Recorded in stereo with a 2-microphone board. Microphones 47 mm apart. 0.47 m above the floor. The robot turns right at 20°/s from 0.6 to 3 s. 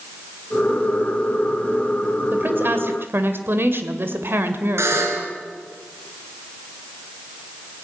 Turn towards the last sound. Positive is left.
turn(degrees=-70)  # may be behind; listen again after turning